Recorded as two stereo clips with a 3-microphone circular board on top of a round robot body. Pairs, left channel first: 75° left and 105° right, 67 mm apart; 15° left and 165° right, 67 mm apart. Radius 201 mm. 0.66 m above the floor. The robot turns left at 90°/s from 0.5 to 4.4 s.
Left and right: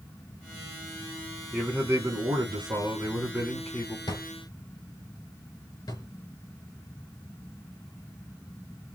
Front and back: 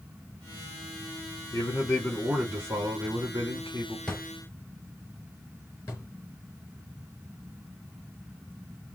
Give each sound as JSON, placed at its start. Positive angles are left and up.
{"t": 1.5, "sound": "a man speaking", "azimuth_deg": -15, "distance_m": 2.5}
{"t": 4.1, "sound": "a drawer", "azimuth_deg": 100, "distance_m": 2.5}
{"t": 5.9, "sound": "a drawer", "azimuth_deg": 70, "distance_m": 3.0}